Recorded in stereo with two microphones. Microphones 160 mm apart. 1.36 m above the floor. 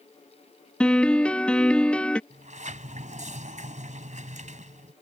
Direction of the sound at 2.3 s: 55° right (ahead or behind).